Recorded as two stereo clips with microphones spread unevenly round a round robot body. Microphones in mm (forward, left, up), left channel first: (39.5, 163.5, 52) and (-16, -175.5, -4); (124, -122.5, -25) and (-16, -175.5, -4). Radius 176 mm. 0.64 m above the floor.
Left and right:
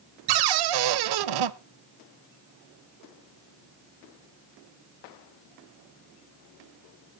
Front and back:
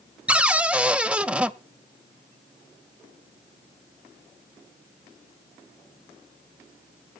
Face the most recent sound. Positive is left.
turn(degrees=-80)